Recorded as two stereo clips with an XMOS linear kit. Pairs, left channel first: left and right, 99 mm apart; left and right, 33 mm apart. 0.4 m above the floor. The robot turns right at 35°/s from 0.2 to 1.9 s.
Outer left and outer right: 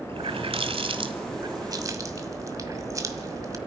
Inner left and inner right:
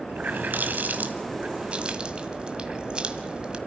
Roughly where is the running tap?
Right.